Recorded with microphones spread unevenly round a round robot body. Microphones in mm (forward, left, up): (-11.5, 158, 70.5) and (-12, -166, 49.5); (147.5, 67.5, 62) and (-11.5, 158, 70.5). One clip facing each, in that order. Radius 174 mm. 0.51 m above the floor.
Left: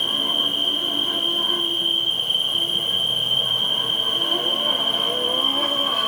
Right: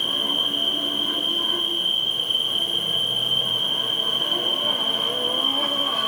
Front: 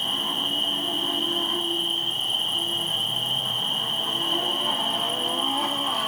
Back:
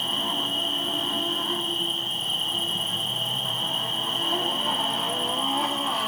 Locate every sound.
0.0 s an insect: 125° left, 2 m